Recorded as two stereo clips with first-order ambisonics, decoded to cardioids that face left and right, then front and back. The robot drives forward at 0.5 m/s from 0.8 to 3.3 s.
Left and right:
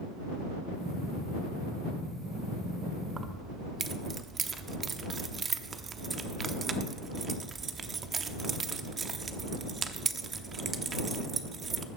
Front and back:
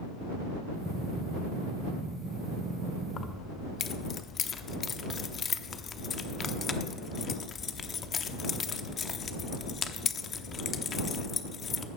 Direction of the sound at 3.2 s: 35° right.